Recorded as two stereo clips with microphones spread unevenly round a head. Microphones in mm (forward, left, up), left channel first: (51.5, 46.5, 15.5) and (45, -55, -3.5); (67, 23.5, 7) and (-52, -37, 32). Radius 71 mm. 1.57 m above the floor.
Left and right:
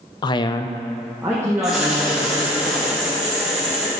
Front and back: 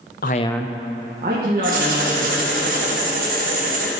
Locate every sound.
0.2 s a man speaking: 55° left, 0.7 m; by 2.6 s 165° right, 3.5 m
1.6 s writing: straight behind, 1.3 m